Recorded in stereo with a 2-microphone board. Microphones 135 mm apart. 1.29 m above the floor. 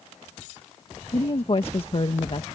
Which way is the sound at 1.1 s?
45° left (ahead or behind).